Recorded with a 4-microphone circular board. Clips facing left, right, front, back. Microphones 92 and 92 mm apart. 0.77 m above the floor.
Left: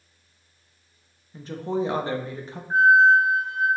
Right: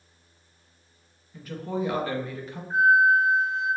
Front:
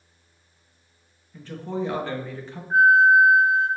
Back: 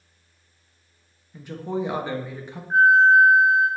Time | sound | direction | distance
1.3 | a woman speaking | 115° left | 0.5 m
2.7 | a flute | 125° left | 1.6 m